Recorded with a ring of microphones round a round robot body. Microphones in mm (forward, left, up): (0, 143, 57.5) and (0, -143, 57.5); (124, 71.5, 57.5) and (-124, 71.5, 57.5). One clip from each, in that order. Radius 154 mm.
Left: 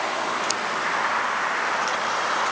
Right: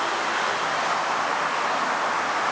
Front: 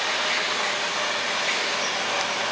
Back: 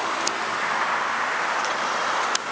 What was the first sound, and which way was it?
Only background noise.